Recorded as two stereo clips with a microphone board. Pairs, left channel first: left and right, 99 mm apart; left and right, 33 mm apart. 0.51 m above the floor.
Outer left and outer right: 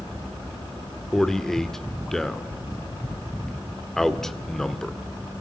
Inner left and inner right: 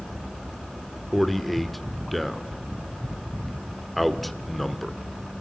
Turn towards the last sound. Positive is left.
turn(degrees=5)  # may be behind; listen again after turning